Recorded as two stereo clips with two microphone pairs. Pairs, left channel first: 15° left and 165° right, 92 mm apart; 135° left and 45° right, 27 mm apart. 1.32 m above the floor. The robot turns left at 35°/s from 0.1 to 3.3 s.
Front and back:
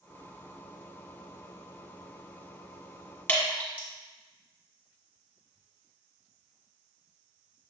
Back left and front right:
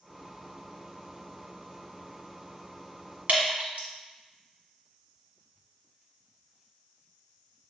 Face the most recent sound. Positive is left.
turn(degrees=-55)